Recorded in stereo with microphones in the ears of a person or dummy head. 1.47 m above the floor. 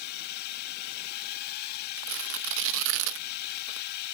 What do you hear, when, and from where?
0.0 s a drone: 55° left (ahead or behind)
2.0 s tearing paper: 70° right (ahead or behind)